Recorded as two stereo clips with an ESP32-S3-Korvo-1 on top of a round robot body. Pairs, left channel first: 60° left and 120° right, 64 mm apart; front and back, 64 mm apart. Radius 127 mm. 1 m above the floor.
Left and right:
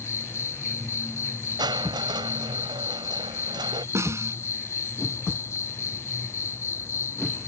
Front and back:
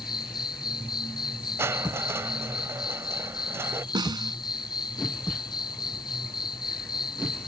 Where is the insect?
10° left.